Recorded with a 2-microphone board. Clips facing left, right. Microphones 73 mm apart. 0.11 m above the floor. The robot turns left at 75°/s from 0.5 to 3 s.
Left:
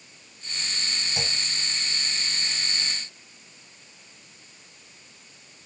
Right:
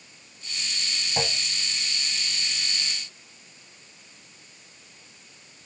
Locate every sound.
1.2 s a clunk: 35° right (ahead or behind); by 1.4 s 20° right (ahead or behind)